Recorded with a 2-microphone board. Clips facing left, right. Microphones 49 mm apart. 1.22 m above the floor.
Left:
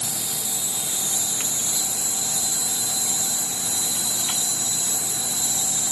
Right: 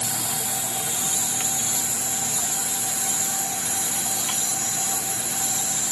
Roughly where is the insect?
Right.